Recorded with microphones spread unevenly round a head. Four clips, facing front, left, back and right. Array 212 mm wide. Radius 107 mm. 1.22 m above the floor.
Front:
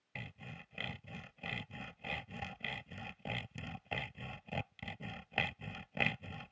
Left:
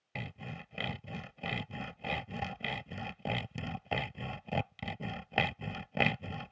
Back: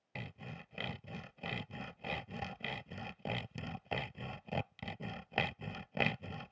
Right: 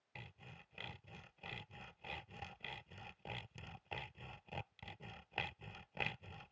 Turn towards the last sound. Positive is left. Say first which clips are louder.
# left 14 dB, back 3 dB
turn(degrees=100)